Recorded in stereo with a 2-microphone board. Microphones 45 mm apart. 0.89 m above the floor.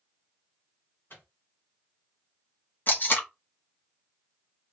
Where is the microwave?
55° left (ahead or behind), 1.1 m.